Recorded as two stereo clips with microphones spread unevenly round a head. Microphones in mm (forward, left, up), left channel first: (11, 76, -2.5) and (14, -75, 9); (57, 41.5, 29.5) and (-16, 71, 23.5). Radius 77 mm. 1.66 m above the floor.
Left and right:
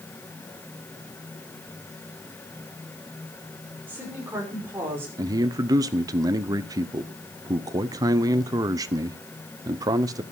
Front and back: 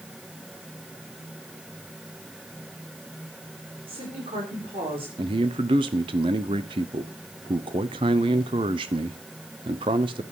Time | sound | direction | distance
3.9 | a woman speaking | 170° right | 6 m
5.2 | a man speaking | 160° right | 0.8 m